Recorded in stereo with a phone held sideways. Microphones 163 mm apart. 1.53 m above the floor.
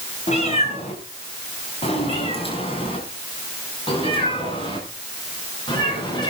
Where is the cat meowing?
45° left (ahead or behind), 4 m; by 6.3 s 30° left (ahead or behind), 7 m.